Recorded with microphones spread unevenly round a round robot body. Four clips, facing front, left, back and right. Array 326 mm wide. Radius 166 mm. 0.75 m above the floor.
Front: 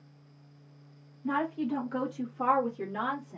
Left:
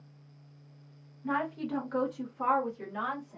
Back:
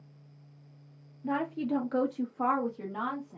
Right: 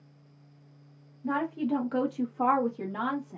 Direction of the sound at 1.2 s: 150° right.